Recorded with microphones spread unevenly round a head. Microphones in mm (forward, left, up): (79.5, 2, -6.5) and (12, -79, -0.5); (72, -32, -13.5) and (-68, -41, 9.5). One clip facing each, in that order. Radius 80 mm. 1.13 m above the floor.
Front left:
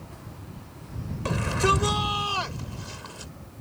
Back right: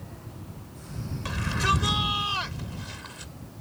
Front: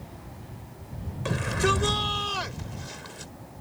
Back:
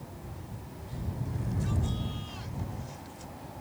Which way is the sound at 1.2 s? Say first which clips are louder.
Front left 4 dB, front 11 dB; 10° left.